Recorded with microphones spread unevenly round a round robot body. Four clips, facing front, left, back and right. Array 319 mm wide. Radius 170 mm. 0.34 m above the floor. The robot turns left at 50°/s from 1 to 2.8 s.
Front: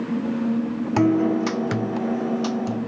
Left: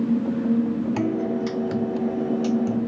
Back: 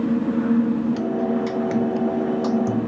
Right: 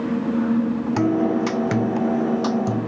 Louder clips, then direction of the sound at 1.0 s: Right 4 dB, front 3 dB; 20° right.